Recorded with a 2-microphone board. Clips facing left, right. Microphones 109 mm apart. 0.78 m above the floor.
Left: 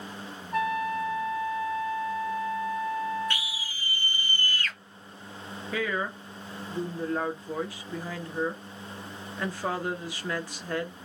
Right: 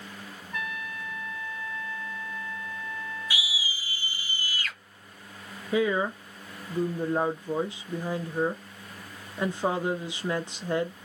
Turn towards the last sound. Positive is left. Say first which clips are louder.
# right 6 dB
turn(degrees=-20)  # may be behind; listen again after turning